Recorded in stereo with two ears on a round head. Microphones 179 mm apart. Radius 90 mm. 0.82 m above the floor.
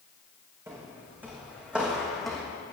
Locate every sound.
0.7 s footsteps: 15° right (ahead or behind), 4 m; by 2.5 s 5° left (ahead or behind), 3 m